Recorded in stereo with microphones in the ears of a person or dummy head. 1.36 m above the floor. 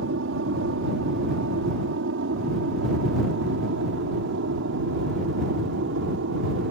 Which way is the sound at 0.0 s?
65° right (ahead or behind).